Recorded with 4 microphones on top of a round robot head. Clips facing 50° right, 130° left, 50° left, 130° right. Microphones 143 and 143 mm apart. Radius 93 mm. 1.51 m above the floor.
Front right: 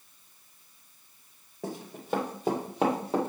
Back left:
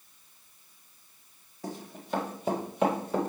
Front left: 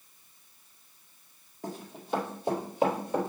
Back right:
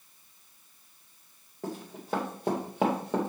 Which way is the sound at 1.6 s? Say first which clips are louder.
Front right 2 dB, back right 2 dB; 75° right.